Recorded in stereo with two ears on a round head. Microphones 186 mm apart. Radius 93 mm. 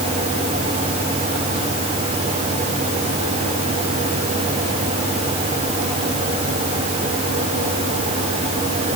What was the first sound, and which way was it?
Only background noise.